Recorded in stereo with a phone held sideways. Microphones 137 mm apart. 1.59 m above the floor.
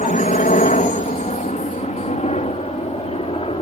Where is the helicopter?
60° left (ahead or behind); by 3.6 s 40° left (ahead or behind).